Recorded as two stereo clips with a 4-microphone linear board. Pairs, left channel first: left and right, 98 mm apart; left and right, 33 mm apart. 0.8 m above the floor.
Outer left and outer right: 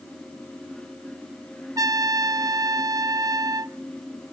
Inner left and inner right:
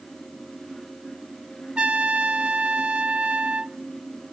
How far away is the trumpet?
About 0.5 m.